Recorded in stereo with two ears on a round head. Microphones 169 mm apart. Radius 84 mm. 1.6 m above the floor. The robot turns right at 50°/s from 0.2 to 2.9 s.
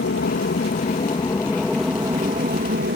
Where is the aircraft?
105° left; by 3.0 s 120° right.